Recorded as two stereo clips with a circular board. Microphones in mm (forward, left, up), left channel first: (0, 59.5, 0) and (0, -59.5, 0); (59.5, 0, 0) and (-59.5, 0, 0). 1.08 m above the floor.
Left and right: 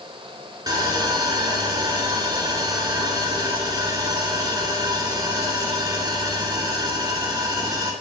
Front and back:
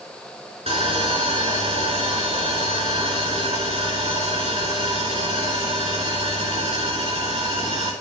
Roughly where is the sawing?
Behind right.